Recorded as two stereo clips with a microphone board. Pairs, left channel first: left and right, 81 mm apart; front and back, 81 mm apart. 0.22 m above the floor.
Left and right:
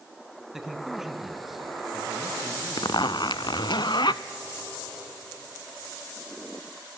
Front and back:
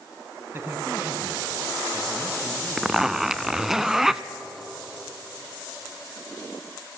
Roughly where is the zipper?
Left.